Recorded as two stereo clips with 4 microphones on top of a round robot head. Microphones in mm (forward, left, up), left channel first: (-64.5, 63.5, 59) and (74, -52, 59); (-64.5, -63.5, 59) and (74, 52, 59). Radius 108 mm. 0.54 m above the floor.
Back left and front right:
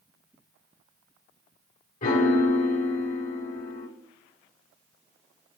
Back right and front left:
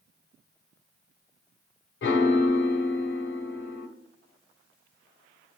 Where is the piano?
170° right, 0.8 m.